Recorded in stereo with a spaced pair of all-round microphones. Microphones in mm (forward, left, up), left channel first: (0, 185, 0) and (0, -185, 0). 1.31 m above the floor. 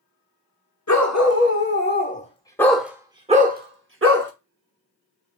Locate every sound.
0.9 s a dog barking: 45° left (ahead or behind), 1.3 m; by 4.3 s 40° right (ahead or behind), 1.2 m